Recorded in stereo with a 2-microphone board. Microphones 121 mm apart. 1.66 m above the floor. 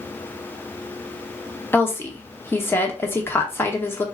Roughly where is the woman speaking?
Centre.